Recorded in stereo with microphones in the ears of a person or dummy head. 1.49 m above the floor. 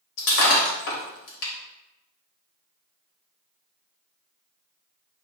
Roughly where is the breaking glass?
Left.